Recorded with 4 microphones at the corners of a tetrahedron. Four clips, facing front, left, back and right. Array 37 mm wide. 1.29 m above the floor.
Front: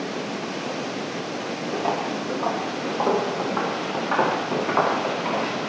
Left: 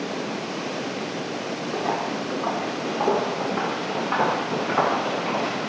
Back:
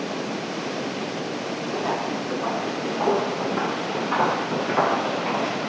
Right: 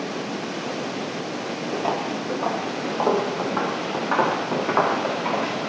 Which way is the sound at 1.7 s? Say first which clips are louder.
Right 1 dB, front 1 dB; 55° right.